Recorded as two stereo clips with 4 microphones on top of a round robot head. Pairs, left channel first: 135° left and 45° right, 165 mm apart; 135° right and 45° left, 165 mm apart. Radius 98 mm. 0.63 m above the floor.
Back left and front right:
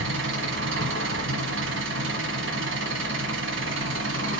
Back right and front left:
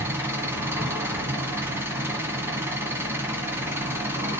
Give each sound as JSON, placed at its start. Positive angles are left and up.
{"t": 0.0, "sound": "an engine running", "azimuth_deg": -35, "distance_m": 1.4}